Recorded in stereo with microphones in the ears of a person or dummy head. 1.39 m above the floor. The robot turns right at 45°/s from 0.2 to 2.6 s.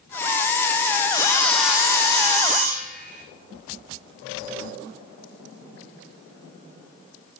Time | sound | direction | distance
1.1 | sawing | 160° left | 0.7 m